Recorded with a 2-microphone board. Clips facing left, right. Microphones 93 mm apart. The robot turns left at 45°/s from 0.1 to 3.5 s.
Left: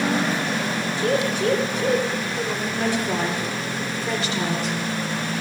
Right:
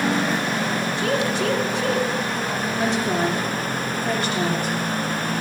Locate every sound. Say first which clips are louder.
1.0 s a woman speaking: left 2 dB; 55° right (ahead or behind), 2 m; by 2.7 s 45° right (ahead or behind), 2 m
2.8 s a woman speaking: right 2 dB; 20° right (ahead or behind), 3.5 m; by 4.8 s 50° right (ahead or behind), 3.5 m